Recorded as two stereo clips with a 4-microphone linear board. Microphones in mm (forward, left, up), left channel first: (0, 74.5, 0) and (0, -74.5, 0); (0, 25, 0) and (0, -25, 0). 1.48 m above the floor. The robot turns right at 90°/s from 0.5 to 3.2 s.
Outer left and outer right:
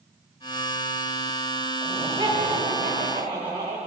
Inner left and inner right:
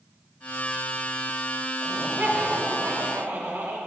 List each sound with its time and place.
1.8 s laughter: 165° right, 3 m; by 3.8 s 40° right, 3 m